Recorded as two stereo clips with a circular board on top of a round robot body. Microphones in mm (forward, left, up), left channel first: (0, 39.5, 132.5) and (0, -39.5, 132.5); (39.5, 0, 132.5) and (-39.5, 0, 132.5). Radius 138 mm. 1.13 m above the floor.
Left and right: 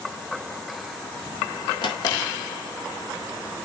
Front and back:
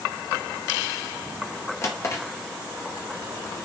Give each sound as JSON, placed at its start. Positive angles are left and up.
{"t": 1.8, "sound": "a drawer", "azimuth_deg": 60, "distance_m": 0.6}